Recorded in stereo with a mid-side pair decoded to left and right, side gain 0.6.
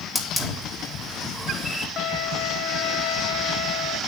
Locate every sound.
0.1 s a hiss: 10° left, 3.5 m
2.0 s a violin: 55° left, 3 m